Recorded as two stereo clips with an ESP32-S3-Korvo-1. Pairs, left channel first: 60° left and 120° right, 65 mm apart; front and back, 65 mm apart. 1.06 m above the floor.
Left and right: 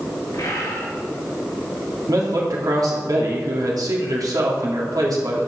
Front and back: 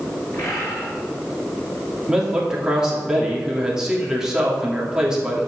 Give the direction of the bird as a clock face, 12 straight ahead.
11 o'clock.